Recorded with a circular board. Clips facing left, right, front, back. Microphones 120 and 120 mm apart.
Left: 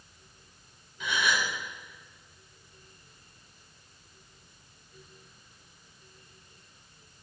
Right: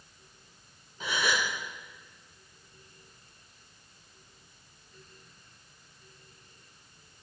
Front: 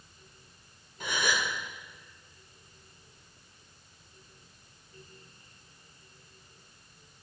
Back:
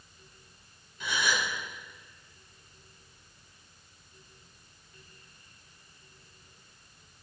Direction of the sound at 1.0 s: 40° right.